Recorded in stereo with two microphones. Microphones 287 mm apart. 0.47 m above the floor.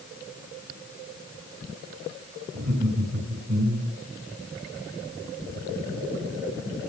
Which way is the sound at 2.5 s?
75° right (ahead or behind).